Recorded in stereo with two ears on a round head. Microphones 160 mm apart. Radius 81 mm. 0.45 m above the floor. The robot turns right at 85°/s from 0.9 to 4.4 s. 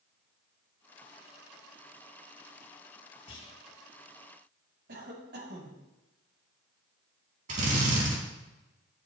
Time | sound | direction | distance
3.3 | a clunk | 35° left (ahead or behind) | 4 m
4.9 | a cough | 65° right (ahead or behind) | 3 m
7.5 | a drill | 45° right (ahead or behind) | 3.5 m